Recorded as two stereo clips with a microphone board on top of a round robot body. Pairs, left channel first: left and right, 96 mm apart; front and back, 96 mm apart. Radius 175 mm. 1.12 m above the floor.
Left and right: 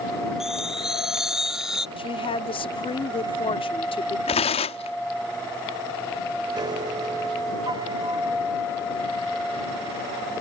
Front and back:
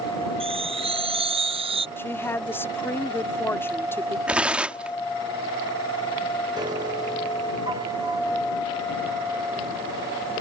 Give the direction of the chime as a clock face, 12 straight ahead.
6 o'clock.